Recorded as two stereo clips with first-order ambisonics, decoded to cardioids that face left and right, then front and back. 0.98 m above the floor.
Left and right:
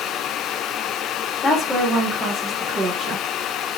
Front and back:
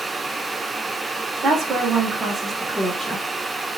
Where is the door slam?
I don't hear a door slam.